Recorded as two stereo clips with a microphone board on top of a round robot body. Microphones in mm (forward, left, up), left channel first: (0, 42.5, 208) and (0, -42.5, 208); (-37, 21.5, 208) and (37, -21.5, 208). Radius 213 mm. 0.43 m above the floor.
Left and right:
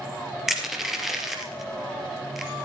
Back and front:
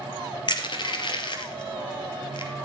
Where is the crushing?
Straight behind, 3 m.